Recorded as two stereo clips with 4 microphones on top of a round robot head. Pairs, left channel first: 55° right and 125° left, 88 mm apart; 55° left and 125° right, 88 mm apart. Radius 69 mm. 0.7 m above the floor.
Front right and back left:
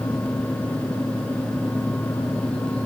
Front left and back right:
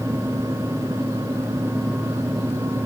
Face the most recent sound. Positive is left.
No sound to turn to.